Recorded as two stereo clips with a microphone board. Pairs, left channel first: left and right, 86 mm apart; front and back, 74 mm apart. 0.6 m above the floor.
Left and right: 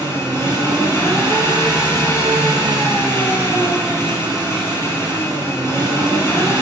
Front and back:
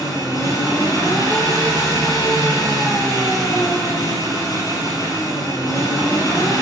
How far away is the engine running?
About 5 m.